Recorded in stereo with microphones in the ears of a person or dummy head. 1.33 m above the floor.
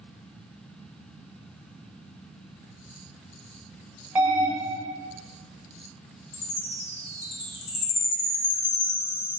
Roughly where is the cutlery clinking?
I don't hear cutlery clinking.